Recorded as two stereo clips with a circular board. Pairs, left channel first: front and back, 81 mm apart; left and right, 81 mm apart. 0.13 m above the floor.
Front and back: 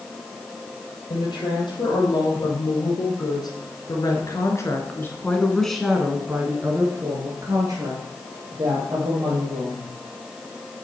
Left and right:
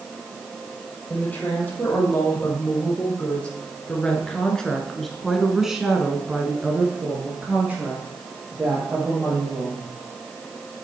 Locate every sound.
1.1 s a woman speaking: 20° left, 3.5 m; by 9.9 s 160° right, 3.5 m